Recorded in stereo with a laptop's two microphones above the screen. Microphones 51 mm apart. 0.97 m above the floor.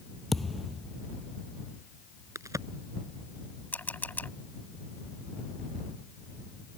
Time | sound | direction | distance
0.3 | a thud | 5° left (ahead or behind) | ?
2.4 | a crack | 85° right | ?
3.7 | a camera shutter | 35° left (ahead or behind) | ?